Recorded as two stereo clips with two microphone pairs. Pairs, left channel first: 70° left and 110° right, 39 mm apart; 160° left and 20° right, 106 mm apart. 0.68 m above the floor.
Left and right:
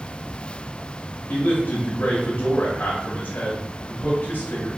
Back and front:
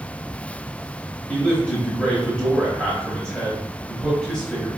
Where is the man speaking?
80° left, 0.8 m.